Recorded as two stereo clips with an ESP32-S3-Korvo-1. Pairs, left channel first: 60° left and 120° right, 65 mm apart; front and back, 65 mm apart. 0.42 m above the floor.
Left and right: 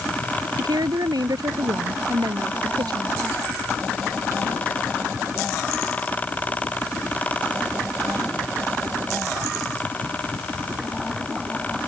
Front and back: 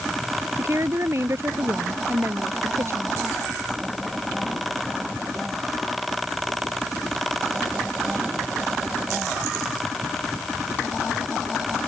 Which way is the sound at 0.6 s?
130° right.